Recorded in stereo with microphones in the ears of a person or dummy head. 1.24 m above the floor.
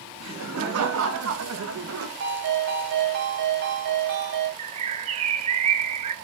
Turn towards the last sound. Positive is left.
turn(degrees=-30)  # may be behind; listen again after turning